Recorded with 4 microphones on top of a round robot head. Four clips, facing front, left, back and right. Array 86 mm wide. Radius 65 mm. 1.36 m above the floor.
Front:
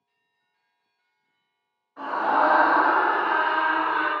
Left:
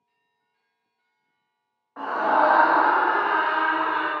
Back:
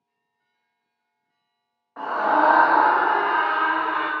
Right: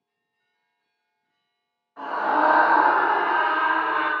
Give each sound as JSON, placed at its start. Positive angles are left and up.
{"t": 2.0, "sound": "a scream", "azimuth_deg": 145, "distance_m": 1.3}